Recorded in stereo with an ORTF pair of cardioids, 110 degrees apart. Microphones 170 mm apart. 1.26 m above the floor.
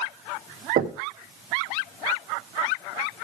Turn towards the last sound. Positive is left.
turn(degrees=-50)